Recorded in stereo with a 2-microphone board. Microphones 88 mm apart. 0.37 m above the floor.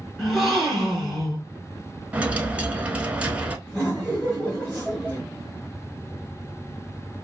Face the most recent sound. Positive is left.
turn(degrees=5)  # may be behind; listen again after turning